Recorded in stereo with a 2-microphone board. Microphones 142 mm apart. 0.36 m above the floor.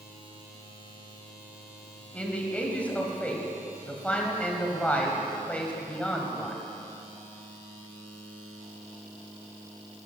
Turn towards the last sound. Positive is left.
turn(degrees=10)  # may be behind; listen again after turning